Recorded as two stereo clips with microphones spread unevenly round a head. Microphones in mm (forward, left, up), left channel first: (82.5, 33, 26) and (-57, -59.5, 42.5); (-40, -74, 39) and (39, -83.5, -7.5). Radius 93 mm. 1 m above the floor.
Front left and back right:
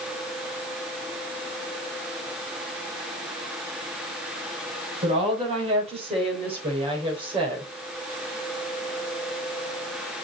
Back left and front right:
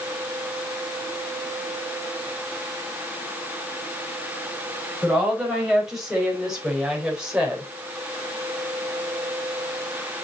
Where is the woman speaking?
90° right, 5 m; by 7.7 s 85° right, 3.5 m.